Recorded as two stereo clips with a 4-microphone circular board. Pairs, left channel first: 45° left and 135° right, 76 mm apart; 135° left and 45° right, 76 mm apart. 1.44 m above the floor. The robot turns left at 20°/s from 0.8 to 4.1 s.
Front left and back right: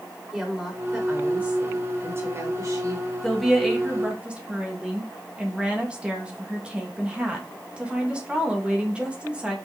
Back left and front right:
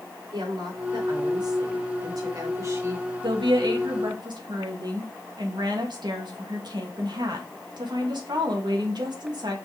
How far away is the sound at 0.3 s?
About 4.5 m.